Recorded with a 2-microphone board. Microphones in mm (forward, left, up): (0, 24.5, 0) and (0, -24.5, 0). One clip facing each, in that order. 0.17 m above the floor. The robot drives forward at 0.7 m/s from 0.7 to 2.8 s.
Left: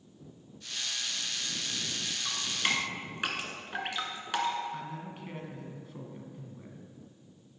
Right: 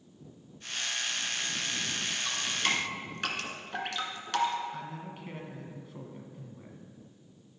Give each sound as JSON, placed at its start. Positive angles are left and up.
{"t": 2.2, "sound": "dripping", "side_deg": 10, "distance_m": 1.9}
{"t": 4.7, "sound": "a man speaking", "side_deg": 0, "distance_m": 1.4}